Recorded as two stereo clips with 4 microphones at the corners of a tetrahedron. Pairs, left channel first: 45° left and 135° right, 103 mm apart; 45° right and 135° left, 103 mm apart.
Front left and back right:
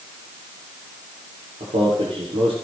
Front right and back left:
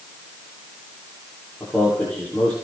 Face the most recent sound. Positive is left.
turn(degrees=-130)